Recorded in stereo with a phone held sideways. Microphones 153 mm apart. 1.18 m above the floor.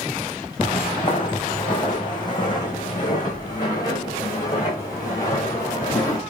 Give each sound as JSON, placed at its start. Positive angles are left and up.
{"t": 0.6, "sound": "footsteps", "side_deg": 35, "distance_m": 3.0}